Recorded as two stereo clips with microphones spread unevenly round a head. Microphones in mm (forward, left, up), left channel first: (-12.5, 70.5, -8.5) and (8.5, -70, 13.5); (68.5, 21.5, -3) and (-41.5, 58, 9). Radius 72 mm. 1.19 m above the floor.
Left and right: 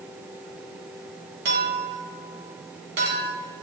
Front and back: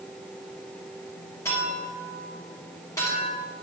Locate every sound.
1.4 s a clink: 90° right, 2.5 m